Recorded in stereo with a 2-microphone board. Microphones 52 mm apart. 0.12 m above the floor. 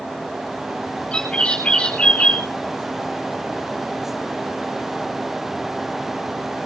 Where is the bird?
20° left (ahead or behind), 8.5 m.